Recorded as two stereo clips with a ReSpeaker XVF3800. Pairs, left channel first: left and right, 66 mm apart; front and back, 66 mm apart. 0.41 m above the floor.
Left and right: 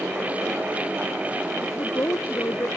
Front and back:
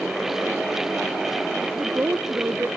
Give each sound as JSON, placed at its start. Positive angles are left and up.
{"t": 1.6, "sound": "a woman speaking", "azimuth_deg": 125}